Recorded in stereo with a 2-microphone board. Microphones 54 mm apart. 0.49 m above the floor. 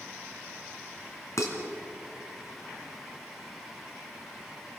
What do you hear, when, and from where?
1.4 s dishes clattering: 65° left (ahead or behind), 3.5 m